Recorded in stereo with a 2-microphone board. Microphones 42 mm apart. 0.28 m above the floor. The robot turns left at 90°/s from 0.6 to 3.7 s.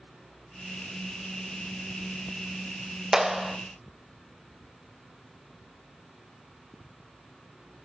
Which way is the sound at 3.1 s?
10° right (ahead or behind).